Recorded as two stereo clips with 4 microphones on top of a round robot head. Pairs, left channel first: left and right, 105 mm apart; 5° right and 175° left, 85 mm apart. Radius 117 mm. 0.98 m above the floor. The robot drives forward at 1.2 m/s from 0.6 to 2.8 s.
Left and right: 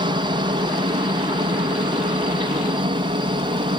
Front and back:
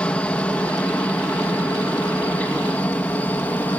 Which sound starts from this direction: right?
A helicopter, at 0.0 s.